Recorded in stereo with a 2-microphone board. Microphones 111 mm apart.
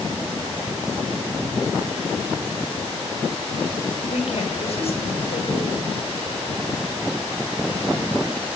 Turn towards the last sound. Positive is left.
turn(degrees=65)  # may be behind; listen again after turning